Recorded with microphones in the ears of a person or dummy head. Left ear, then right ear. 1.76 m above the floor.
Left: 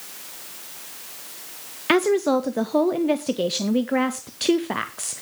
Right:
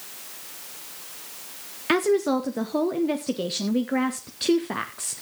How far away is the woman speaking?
About 0.6 m.